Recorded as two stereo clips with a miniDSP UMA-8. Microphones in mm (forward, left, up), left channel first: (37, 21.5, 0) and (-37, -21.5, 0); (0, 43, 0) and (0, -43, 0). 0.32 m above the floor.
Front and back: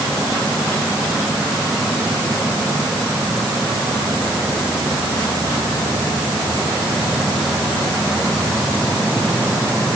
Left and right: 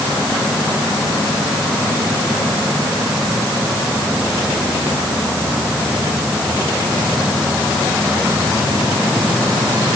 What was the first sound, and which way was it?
Only background noise.